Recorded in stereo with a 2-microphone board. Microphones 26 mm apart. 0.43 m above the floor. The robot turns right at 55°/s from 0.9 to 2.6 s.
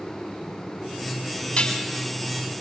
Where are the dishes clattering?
45° left (ahead or behind), 2 m; by 1.8 s 60° left (ahead or behind), 2 m.